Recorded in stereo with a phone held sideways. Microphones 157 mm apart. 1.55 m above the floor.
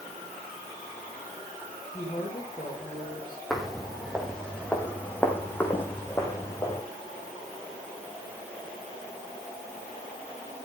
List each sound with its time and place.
1.9 s a woman speaking: 35° left (ahead or behind), 6.5 m
3.5 s footsteps: centre (ahead or behind), 3.5 m; by 6.8 s 20° left (ahead or behind), 4.5 m